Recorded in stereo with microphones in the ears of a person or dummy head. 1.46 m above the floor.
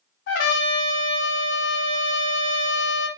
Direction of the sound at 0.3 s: 55° left (ahead or behind).